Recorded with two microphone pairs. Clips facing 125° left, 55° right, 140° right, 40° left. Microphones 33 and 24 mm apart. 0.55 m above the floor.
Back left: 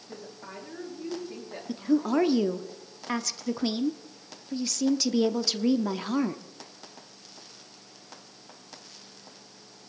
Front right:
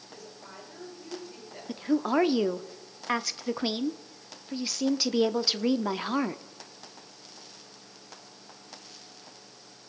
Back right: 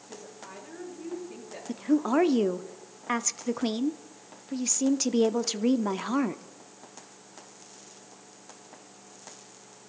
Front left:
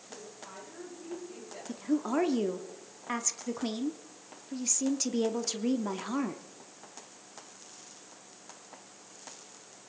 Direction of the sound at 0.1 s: 160° left.